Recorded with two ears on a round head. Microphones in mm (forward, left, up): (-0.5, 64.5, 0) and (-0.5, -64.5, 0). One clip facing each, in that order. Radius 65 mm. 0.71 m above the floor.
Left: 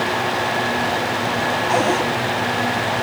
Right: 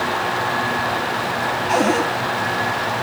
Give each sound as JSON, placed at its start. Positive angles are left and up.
{"t": 1.7, "sound": "a cupboard door", "side_deg": -15, "distance_m": 5.5}